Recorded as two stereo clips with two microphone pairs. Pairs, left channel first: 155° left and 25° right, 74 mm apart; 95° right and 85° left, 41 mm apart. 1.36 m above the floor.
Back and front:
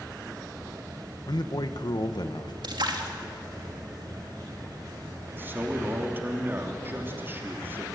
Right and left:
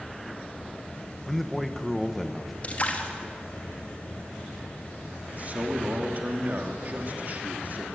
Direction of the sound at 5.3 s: 35° left.